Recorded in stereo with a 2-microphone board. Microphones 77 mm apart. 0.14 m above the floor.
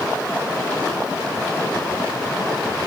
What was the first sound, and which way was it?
Only background noise.